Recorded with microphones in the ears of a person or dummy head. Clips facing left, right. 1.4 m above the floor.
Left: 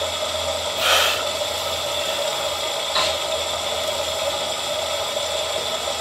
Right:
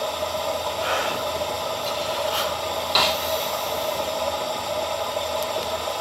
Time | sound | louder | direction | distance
0.0 | running water | left 1 dB | 20° left (ahead or behind) | 0.7 m
3.0 | a snare drum | right 1 dB | 45° right (ahead or behind) | 1.4 m